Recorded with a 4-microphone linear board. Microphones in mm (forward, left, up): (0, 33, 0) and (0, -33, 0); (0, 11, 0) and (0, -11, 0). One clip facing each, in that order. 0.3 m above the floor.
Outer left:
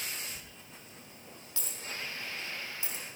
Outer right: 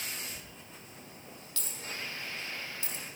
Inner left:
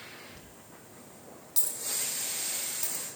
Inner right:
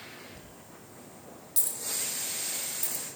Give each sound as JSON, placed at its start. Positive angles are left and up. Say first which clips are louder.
{"t": 0.3, "sound": "a dropped coin", "louder": "outer right 2 dB, inner right 2 dB", "side_deg": 10, "distance_m": 2.5}